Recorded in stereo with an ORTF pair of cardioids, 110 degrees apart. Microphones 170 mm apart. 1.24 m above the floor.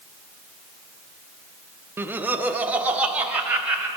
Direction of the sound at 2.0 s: 15° right.